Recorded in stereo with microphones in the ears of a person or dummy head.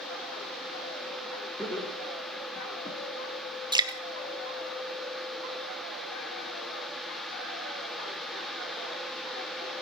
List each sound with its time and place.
1.6 s laughter: 5° left (ahead or behind), 4 m; by 3.0 s 30° left (ahead or behind), 3 m
3.7 s dripping: 25° right (ahead or behind), 0.9 m